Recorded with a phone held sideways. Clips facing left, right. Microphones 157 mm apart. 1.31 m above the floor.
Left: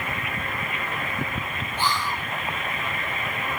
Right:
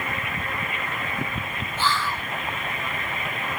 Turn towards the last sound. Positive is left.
turn(degrees=15)  # may be behind; listen again after turning